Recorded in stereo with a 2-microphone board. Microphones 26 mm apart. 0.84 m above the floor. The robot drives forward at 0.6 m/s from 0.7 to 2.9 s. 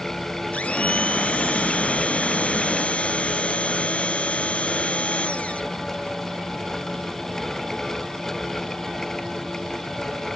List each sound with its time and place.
0.5 s a blender: 70° left (ahead or behind); by 5.6 s 60° left (ahead or behind)